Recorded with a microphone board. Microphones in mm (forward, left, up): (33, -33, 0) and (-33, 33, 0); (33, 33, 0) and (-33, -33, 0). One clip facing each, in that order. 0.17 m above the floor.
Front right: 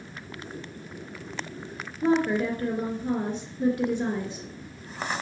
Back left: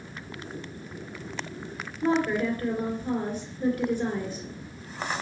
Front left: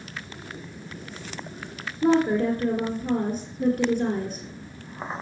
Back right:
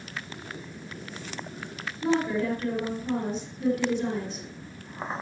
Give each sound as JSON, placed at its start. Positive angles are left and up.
{"t": 2.0, "sound": "a woman speaking", "azimuth_deg": 20, "distance_m": 2.5}